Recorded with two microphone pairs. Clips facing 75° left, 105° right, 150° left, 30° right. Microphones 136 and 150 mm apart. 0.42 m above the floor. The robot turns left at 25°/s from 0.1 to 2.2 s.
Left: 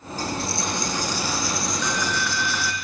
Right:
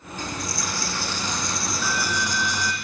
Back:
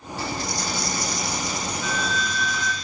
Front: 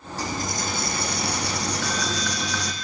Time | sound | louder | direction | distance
0.2 | a dropped coin | left 4 dB, even | 20° left | 3.5 m